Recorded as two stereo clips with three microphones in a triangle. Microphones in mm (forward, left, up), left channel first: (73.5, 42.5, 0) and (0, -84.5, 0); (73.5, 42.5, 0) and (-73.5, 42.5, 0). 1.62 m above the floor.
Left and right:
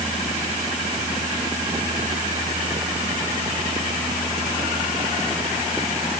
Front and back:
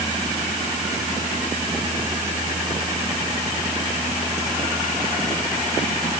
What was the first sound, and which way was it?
Only background noise.